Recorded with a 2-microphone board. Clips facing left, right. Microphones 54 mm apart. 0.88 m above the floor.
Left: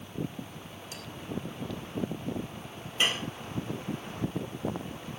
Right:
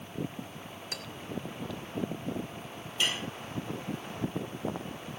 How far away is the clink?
About 2.5 m.